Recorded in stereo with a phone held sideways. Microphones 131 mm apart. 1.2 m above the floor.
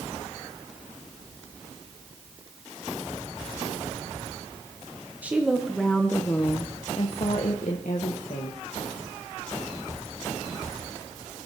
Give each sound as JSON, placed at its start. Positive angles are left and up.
{"t": 5.2, "sound": "a woman speaking", "side_deg": -10, "distance_m": 1.0}